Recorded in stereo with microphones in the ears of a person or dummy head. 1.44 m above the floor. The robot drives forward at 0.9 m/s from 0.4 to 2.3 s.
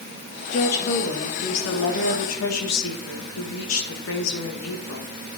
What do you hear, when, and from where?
0.5 s a woman speaking: 55° left (ahead or behind), 2.5 m; by 5.1 s 85° left, 2 m